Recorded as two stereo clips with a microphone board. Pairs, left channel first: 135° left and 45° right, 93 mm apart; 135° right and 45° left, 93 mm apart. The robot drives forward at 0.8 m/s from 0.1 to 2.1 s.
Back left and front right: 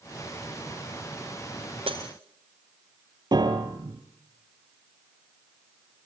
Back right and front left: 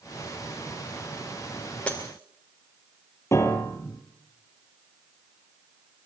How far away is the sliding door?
I don't hear a sliding door.